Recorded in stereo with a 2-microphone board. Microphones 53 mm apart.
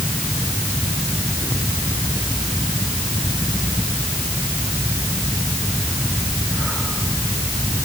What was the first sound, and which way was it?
Only background noise.